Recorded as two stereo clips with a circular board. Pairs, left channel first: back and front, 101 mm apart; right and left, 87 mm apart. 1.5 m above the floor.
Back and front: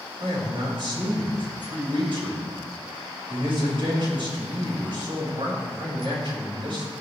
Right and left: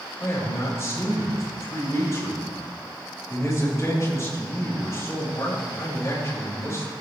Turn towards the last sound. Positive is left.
turn(degrees=-30)